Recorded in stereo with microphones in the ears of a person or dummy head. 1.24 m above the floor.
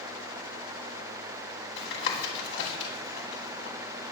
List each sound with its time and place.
1.8 s tapping: 65° left (ahead or behind), 2.5 m